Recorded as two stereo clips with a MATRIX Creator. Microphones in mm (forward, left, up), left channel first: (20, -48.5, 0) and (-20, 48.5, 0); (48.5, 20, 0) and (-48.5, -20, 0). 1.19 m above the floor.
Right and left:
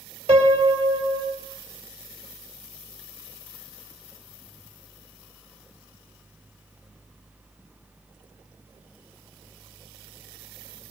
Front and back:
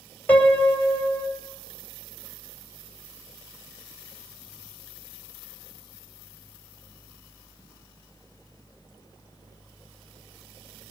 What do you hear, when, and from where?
0.3 s a piano: 95° left, 3.5 m